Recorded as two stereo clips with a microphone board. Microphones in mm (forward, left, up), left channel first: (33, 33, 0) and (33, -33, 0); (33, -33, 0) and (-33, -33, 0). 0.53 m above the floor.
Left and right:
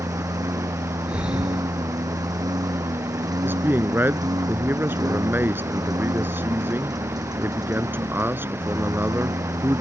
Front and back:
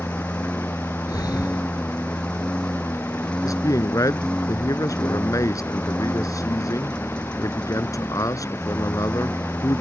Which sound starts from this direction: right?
A lawn mower, at 0.0 s.